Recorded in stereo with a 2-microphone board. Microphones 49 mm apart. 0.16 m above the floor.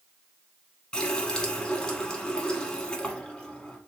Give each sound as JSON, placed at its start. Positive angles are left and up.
{"t": 0.9, "sound": "a running tap", "side_deg": 15, "distance_m": 0.8}